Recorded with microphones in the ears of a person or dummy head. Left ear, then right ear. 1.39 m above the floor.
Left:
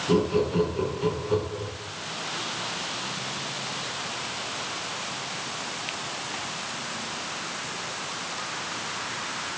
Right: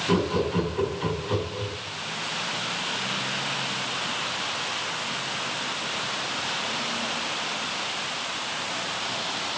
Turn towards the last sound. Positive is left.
turn(degrees=-45)  # may be behind; listen again after turning